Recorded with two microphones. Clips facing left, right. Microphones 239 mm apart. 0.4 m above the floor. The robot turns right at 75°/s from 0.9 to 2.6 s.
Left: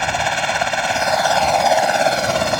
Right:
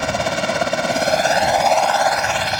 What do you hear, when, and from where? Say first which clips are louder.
0.0 s a helicopter: right 2 dB; 55° right; by 2.6 s 75° left